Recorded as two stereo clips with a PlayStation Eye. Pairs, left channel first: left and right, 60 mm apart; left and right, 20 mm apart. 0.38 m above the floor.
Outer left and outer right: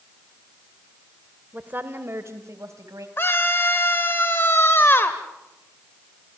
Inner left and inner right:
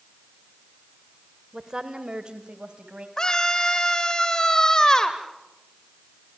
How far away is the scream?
About 1.3 m.